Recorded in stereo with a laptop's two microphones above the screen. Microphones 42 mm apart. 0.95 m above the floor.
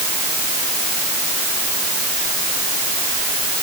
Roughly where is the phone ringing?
I don't hear a phone ringing.